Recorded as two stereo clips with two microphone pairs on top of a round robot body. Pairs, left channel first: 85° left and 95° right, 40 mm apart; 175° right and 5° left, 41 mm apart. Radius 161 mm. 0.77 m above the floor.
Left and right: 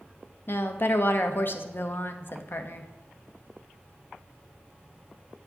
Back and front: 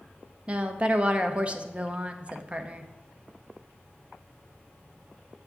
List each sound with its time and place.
0.5 s a woman speaking: 60° left, 0.8 m